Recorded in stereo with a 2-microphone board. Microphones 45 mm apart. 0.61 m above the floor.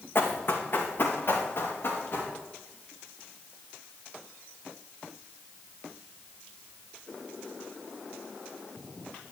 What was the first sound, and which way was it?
Running footsteps, 50° left (ahead or behind).